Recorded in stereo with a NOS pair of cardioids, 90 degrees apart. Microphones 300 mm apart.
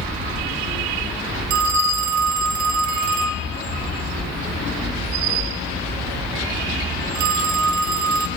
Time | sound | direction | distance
1.5 | a phone ringing | 70° right | 0.8 m